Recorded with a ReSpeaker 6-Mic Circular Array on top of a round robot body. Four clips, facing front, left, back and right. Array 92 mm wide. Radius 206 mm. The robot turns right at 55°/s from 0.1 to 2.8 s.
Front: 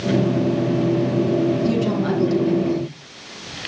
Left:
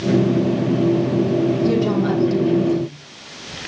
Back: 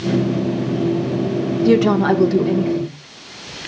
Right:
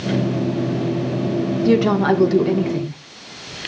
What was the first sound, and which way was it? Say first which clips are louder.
A woman speaking: right 2 dB, back 6 dB; 155° right.